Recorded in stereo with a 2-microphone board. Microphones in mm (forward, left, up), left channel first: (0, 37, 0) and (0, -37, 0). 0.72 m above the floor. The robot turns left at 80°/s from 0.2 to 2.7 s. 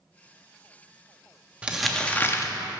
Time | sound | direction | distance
1.6 | crumpling | 160° right | 0.6 m